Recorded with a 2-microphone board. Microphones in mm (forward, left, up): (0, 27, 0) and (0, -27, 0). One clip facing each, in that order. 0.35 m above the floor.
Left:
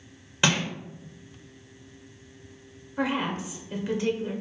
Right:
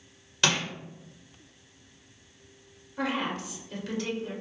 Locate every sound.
0.4 s crushing: 20° left (ahead or behind), 1.2 m
3.0 s a woman speaking: 20° left (ahead or behind), 0.8 m